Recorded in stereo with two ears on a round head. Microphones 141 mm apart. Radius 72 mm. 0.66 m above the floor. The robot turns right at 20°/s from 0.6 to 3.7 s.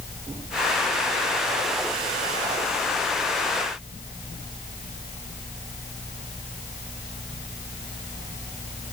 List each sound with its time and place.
Only background noise.